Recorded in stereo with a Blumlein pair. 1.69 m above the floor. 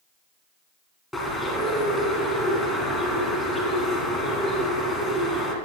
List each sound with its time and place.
1.1 s a bird: 5° left, 2.5 m